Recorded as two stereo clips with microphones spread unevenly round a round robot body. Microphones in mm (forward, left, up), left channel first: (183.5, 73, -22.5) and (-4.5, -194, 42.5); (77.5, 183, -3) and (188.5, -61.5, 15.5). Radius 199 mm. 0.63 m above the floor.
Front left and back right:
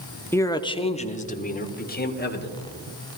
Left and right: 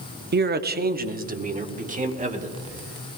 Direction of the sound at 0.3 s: 20° right.